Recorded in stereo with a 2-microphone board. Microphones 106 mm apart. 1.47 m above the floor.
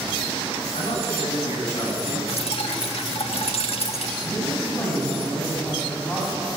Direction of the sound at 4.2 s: 20° left (ahead or behind).